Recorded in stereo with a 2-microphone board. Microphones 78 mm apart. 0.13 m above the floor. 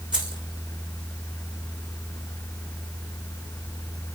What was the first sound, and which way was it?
Keys jangling, 10° right (ahead or behind).